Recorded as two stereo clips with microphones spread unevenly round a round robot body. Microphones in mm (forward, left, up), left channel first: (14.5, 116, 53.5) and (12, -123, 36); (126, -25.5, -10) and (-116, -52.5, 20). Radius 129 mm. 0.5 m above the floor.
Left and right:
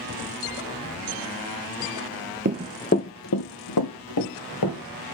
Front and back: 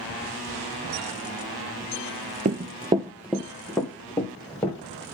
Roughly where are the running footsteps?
Behind right.